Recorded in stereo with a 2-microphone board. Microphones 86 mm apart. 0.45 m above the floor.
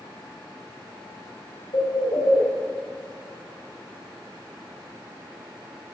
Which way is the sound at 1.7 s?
80° left.